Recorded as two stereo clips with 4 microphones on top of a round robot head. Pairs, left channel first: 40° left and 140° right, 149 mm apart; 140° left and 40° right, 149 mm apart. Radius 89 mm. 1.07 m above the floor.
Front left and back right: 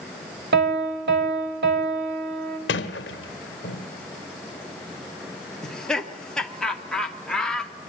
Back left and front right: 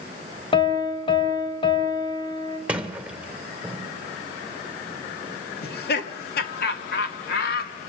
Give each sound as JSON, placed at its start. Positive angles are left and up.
{"t": 0.5, "sound": "a piano", "azimuth_deg": -160, "distance_m": 3.5}
{"t": 2.7, "sound": "a sliding door", "azimuth_deg": 40, "distance_m": 1.2}
{"t": 5.6, "sound": "laughter", "azimuth_deg": 125, "distance_m": 2.0}